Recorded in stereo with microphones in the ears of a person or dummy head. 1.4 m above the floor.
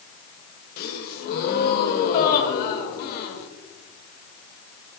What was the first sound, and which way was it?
A gasp, 55° left (ahead or behind).